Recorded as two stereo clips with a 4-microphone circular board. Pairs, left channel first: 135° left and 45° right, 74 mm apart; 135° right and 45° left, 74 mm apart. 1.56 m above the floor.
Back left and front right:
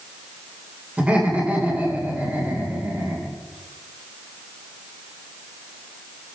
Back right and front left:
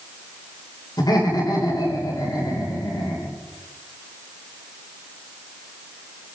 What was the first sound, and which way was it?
Laughter, 120° right.